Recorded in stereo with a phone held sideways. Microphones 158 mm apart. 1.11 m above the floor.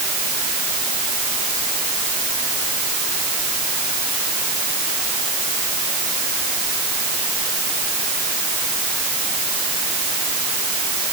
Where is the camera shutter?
I don't hear a camera shutter.